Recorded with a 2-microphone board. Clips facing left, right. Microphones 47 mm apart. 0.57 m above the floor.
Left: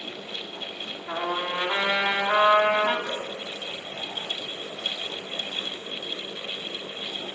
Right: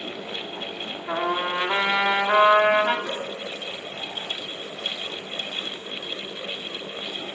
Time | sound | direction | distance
1.1 | a trumpet | 25° right (ahead or behind) | 1.4 m
3.1 | dripping | 10° right (ahead or behind) | 4 m